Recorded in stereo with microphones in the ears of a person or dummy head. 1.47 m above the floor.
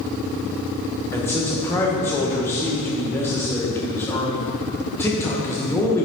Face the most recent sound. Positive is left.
turn(degrees=10)  # may be behind; listen again after turning